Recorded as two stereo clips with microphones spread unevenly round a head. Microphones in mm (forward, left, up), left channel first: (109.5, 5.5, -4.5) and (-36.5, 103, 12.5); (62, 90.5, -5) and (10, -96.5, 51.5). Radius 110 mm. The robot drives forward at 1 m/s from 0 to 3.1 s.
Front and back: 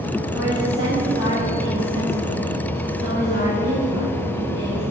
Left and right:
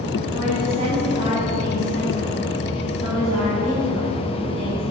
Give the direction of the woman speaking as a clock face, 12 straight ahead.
5 o'clock.